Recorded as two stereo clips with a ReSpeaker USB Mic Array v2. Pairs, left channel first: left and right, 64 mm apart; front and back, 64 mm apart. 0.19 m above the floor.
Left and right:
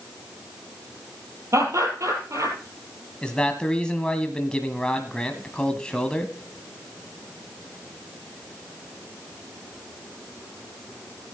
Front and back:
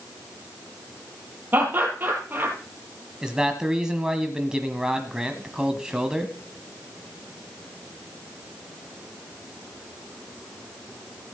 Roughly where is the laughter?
Behind right.